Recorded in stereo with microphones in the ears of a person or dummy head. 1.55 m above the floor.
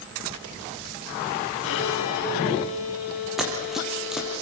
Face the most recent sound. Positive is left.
turn(degrees=0)  # may be behind; listen again after turning